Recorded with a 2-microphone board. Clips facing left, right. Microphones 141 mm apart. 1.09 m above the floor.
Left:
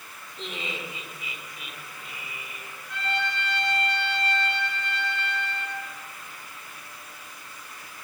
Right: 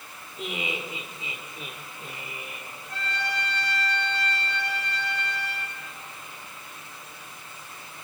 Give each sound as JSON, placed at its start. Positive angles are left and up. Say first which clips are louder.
{"t": 0.4, "sound": "laughter", "louder": "right 3 dB", "side_deg": -10, "distance_m": 3.5}
{"t": 2.9, "sound": "a trumpet", "louder": "left 2 dB", "side_deg": -40, "distance_m": 8.5}